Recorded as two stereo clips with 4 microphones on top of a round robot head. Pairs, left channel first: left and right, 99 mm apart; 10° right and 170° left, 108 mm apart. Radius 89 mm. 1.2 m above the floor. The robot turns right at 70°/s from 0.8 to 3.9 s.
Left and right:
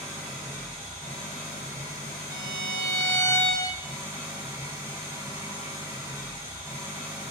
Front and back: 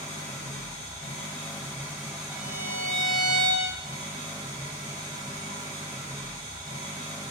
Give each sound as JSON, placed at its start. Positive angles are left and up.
{"t": 0.0, "sound": "an engine running", "azimuth_deg": -5, "distance_m": 1.8}
{"t": 2.3, "sound": "a violin", "azimuth_deg": -125, "distance_m": 0.5}